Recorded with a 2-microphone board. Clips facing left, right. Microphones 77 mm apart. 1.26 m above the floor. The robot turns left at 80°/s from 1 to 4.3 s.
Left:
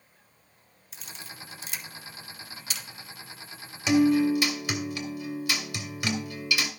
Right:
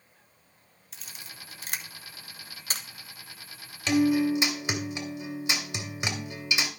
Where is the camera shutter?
Centre (ahead or behind), 1.1 m; by 2.9 s 35° right (ahead or behind), 1.1 m.